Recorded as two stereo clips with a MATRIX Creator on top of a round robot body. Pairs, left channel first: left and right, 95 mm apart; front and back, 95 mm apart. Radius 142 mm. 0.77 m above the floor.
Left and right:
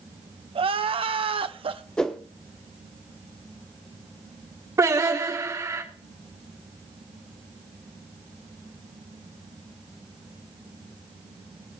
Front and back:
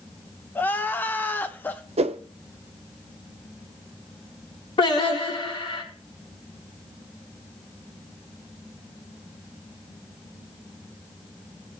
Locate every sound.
0.6 s crying: 70° right, 1.0 m
2.0 s a whoosh: 175° left, 0.7 m
4.8 s singing: 30° right, 6 m